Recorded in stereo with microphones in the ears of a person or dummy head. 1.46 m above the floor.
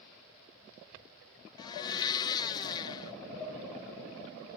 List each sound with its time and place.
1.6 s a blender: 25° left (ahead or behind), 0.5 m
3.4 s dishes clattering: 15° left (ahead or behind), 10 m